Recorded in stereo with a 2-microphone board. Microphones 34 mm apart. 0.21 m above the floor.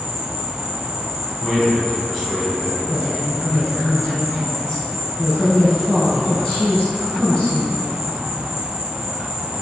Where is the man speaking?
5° left (ahead or behind), 1.4 m.